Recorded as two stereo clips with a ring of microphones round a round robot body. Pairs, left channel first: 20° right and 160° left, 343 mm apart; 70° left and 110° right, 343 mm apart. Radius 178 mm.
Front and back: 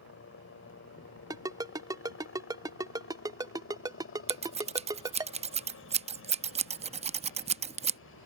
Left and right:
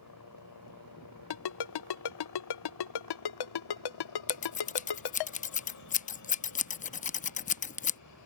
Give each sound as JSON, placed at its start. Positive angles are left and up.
{"t": 0.0, "sound": "a helicopter", "azimuth_deg": 30}
{"t": 1.3, "sound": "a ringtone", "azimuth_deg": 80}
{"t": 4.3, "sound": "scissors", "azimuth_deg": 110}